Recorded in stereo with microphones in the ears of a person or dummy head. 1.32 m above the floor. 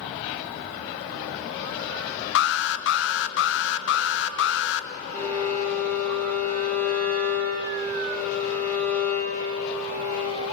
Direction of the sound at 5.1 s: 15° left (ahead or behind).